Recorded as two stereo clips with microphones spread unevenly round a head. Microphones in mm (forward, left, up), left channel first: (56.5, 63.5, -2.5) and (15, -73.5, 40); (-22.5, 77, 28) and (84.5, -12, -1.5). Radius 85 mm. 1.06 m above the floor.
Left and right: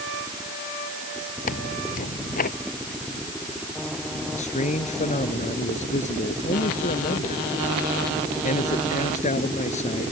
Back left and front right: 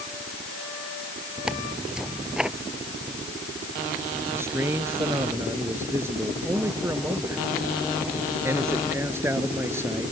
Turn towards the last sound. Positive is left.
turn(degrees=35)